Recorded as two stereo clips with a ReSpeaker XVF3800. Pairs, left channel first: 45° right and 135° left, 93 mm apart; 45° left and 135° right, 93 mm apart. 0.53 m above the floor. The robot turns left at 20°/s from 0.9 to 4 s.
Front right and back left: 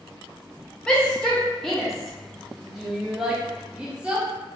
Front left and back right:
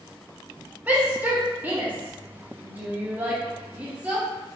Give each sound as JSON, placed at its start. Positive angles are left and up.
{"t": 0.9, "sound": "a shout", "azimuth_deg": -110, "distance_m": 0.7}